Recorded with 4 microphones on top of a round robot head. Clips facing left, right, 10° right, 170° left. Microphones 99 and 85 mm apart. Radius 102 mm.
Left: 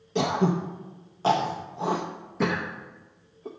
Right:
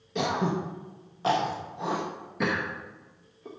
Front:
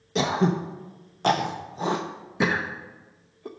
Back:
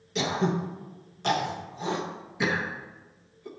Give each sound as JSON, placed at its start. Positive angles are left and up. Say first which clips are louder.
{"t": 0.1, "sound": "throat clearing", "louder": "left 3 dB, front 4 dB", "azimuth_deg": 25, "distance_m": 0.6}